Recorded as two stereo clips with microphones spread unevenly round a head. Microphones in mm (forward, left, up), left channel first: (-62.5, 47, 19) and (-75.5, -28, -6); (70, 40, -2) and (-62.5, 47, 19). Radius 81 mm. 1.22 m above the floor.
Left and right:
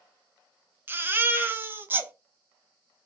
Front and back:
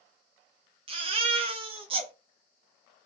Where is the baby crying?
175° right, 0.6 m.